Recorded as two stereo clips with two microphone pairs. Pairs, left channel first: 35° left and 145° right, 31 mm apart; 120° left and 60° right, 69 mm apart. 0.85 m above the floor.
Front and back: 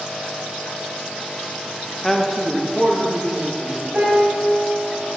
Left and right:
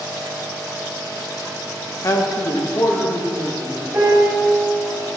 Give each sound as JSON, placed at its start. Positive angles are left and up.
{"t": 2.0, "sound": "a man speaking", "azimuth_deg": 105, "distance_m": 0.7}
{"t": 3.9, "sound": "a piano", "azimuth_deg": -120, "distance_m": 1.9}